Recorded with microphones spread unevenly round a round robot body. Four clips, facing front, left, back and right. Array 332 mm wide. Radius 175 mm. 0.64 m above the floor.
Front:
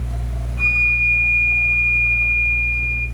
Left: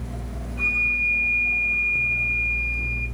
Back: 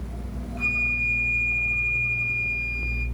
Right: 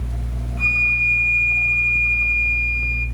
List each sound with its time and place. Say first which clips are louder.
0.6 s a flute: right 4 dB, front 8 dB; 150° right, 1.3 m